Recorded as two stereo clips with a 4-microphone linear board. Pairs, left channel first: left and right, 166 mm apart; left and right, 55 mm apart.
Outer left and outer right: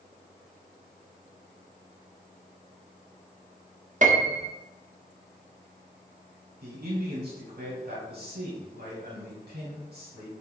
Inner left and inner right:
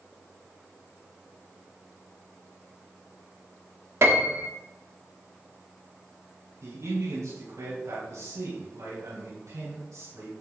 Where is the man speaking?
75° right (ahead or behind), 4 m.